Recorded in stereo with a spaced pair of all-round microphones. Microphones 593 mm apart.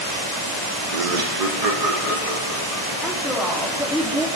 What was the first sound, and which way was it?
Laughter, 75° right (ahead or behind).